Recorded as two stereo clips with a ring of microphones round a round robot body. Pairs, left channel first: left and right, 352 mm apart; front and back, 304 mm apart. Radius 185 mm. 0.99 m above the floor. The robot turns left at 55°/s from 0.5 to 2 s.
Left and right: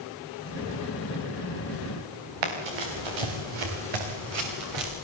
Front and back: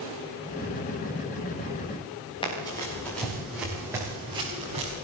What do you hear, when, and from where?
2.4 s running footsteps: 75° right, 6 m; by 4.9 s 105° right, 7 m